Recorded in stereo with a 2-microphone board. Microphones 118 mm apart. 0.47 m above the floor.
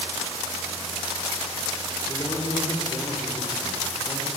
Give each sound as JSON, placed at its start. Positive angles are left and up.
{"t": 2.1, "sound": "a man speaking", "side_deg": 40, "distance_m": 6.0}